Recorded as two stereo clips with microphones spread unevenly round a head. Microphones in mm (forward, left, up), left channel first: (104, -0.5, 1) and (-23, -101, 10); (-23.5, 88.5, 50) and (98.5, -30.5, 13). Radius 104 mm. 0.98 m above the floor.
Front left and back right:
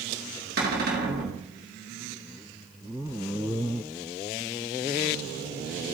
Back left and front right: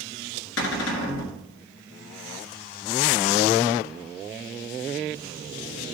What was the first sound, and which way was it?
A cupboard door, 170° left.